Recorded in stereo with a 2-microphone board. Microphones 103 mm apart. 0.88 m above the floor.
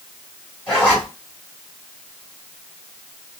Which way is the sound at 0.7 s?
15° left (ahead or behind).